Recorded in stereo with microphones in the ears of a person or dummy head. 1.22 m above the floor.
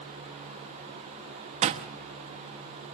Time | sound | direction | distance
1.6 | a door slam | 35° right (ahead or behind) | 0.8 m